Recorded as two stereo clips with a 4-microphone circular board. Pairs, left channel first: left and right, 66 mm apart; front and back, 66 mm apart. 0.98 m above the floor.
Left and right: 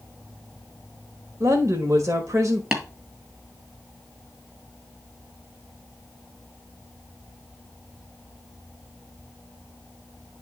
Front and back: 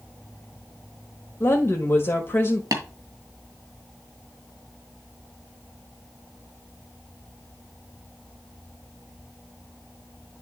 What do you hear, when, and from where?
1.4 s a woman speaking: 50° right, 1.3 m
2.7 s tapping: 165° right, 2 m